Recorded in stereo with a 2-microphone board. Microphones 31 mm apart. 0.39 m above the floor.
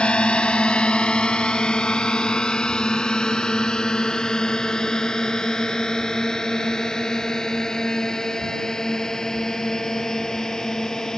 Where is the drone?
30° left (ahead or behind); by 11.2 s 15° left (ahead or behind).